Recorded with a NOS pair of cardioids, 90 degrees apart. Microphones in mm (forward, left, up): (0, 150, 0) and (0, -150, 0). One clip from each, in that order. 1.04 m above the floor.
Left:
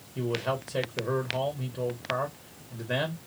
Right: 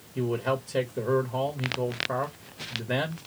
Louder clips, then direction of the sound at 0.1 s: Right 2 dB; 15° right.